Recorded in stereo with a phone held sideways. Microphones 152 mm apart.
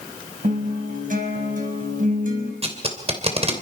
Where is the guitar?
60° right (ahead or behind), 5 m.